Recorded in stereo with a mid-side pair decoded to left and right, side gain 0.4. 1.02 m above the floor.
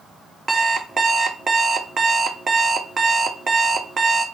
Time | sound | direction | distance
0.5 | an alarm clock | 35° right | 0.5 m